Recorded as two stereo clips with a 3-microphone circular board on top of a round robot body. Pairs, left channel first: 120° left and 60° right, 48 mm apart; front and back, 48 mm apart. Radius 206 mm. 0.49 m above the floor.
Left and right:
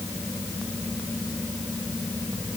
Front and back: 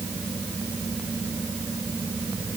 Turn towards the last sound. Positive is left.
No sound to turn to.